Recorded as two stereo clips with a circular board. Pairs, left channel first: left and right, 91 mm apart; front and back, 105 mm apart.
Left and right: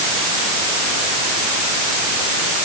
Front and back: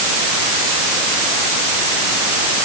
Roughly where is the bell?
No bell in this recording.